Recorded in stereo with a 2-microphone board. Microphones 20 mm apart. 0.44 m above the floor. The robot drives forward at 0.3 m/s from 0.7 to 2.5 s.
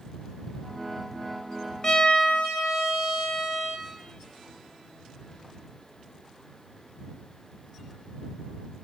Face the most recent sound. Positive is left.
turn(degrees=35)  # may be behind; listen again after turning